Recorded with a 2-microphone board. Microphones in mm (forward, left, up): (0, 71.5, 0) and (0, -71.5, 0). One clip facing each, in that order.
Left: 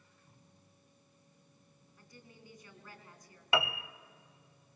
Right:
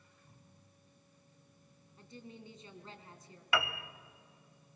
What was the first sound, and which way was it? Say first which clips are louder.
A woman speaking: right 7 dB; 25° right (ahead or behind).